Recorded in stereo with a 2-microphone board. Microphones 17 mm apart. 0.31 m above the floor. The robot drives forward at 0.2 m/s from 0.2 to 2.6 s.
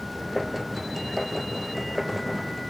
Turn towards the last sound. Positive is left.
No sound to turn to.